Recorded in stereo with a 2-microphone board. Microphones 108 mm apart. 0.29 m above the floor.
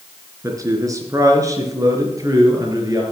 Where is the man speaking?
30° right (ahead or behind), 3.5 m.